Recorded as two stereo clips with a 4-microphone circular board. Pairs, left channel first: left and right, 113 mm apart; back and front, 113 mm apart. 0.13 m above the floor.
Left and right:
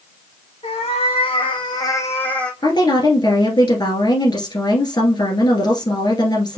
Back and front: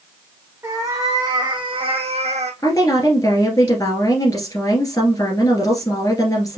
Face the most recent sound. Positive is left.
turn(degrees=130)